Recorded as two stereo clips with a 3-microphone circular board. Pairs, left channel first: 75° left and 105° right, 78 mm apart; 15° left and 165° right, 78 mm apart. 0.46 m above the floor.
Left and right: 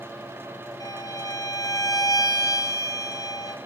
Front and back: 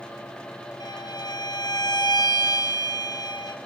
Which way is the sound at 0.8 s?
40° left.